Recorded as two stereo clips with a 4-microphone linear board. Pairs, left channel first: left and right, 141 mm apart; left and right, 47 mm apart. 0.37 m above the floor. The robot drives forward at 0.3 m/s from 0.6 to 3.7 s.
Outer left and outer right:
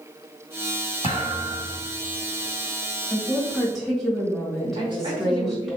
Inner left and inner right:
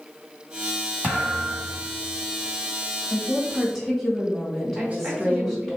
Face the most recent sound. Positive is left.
turn(degrees=-30)  # may be behind; listen again after turning